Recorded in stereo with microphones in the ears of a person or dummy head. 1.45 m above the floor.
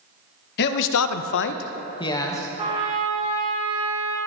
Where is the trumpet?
25° right (ahead or behind), 1.8 m.